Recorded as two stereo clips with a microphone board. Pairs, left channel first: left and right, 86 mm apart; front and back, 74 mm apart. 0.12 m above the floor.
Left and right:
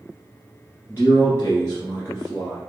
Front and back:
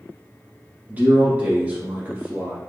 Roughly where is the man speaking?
Behind left.